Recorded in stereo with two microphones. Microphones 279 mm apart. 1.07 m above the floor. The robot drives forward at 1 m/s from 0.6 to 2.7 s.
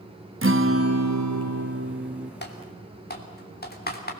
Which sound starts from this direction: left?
Typing on a keyboard, at 2.4 s.